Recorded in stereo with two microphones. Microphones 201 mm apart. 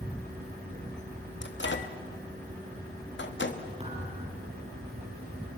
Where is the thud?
30° right (ahead or behind), 6 m.